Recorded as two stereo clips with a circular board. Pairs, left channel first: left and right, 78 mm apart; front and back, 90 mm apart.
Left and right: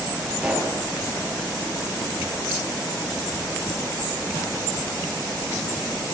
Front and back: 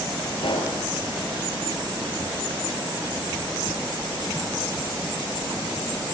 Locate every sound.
0.4 s a pop: 15° right, 7 m